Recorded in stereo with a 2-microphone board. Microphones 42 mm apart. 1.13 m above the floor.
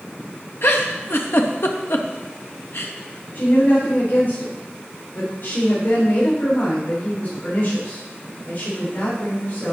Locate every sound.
0.6 s a giggle: 65° left (ahead or behind), 0.9 m
3.4 s a woman speaking: 45° left (ahead or behind), 4.5 m